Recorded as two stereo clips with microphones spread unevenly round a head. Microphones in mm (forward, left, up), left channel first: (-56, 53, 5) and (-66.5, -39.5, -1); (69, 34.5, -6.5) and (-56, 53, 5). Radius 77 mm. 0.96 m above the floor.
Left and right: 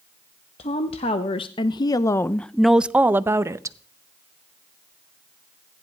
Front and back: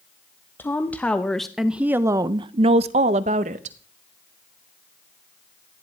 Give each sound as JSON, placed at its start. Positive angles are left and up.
{"t": 0.6, "sound": "a woman speaking", "azimuth_deg": 65, "distance_m": 1.1}